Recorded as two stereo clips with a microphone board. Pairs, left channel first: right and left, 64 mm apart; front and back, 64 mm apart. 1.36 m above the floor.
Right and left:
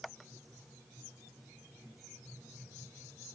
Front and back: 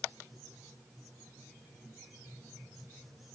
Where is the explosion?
No explosion in this recording.